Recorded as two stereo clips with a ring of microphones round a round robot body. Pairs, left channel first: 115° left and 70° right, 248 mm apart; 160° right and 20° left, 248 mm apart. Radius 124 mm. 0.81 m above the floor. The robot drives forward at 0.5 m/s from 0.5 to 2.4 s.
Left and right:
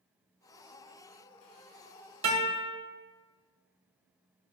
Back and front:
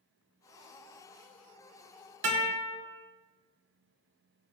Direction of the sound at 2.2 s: 5° right.